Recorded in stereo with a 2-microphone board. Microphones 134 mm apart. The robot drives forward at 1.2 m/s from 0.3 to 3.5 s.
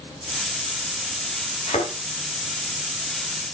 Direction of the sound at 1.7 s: 60° left (ahead or behind).